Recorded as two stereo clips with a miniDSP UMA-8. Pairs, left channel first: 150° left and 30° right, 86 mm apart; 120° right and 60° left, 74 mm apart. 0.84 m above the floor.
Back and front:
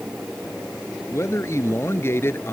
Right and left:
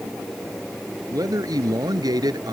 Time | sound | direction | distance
1.1 | a man speaking | 95° left | ?